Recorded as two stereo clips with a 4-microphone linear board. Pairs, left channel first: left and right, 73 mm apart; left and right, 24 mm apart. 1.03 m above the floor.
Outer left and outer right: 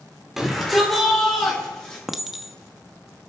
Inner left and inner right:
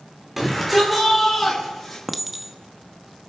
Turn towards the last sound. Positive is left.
turn(degrees=-5)  # may be behind; listen again after turning